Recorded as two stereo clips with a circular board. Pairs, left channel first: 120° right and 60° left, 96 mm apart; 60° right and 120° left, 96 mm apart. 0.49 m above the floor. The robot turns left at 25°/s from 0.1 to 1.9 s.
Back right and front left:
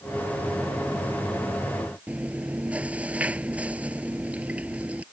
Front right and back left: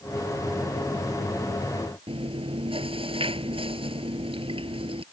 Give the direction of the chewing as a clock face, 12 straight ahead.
7 o'clock.